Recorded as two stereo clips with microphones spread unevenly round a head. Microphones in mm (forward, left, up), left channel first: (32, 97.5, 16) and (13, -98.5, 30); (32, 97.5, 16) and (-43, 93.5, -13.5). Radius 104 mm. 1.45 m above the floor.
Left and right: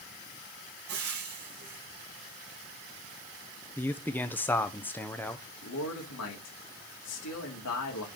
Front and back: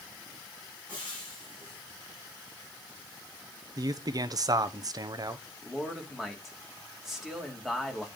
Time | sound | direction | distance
0.9 | frying | 65° right | 3.5 m
3.8 | a man speaking | 165° left | 0.8 m
5.6 | a man speaking | 95° left | 2.5 m